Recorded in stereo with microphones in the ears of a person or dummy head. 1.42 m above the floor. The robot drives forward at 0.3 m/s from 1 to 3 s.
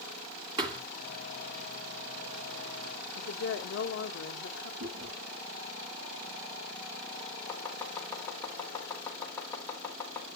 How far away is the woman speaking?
About 0.9 m.